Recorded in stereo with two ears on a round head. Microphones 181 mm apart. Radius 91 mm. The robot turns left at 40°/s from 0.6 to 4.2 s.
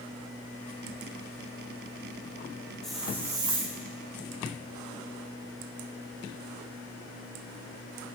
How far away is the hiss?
About 1.2 m.